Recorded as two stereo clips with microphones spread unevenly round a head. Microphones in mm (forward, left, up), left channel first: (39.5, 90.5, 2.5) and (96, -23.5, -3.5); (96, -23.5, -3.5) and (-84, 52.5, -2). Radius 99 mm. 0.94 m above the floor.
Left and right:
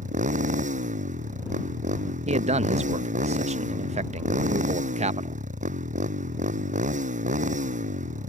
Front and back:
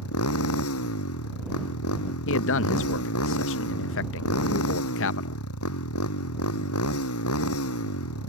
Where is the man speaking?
40° right.